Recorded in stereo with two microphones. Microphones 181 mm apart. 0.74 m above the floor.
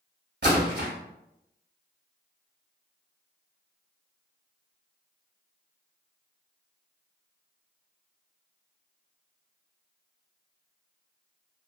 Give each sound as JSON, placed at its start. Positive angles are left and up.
{"t": 0.4, "sound": "a splash", "side_deg": -65, "distance_m": 1.0}